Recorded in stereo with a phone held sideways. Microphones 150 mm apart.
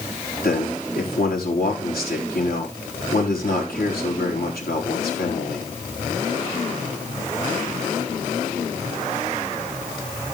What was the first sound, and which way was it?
A man speaking, 85° left.